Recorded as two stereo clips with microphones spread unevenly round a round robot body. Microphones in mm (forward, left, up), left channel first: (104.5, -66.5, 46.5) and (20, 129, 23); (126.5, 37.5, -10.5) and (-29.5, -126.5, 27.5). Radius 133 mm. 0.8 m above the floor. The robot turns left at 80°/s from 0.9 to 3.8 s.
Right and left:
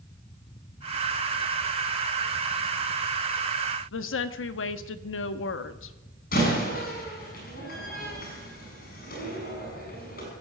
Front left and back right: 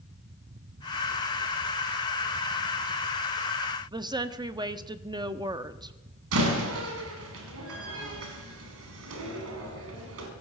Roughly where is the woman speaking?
Ahead right.